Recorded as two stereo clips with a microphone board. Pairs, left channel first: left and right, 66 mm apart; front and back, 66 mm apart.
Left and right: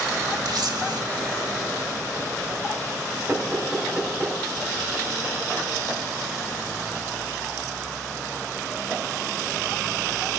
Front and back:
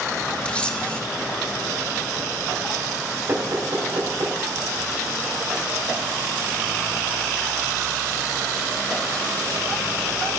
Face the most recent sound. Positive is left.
turn(degrees=-155)